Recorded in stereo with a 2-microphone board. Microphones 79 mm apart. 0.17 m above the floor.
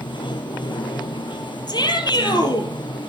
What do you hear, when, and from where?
0.0 s running water: 85° left, 1.1 m
1.7 s a shout: 65° left (ahead or behind), 3.5 m